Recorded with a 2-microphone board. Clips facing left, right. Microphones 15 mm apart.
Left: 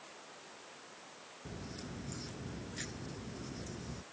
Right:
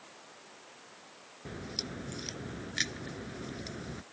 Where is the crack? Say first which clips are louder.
Right 8 dB; 80° right.